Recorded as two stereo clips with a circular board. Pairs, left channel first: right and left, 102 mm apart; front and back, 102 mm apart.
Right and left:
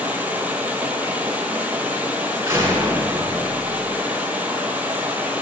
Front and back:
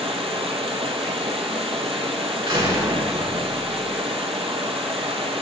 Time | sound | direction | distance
0.0 | running water | 165° left | 1.3 m
2.5 | a door slam | 150° left | 3 m